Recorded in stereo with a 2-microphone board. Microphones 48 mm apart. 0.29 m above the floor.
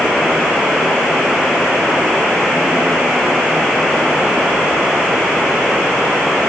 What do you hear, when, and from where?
Only background noise.